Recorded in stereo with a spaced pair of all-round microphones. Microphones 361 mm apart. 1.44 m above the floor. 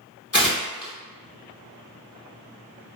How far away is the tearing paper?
About 0.9 m.